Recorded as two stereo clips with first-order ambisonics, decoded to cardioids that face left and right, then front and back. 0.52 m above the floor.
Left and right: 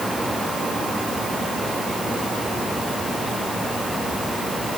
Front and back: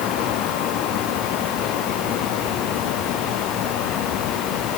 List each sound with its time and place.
Only background noise.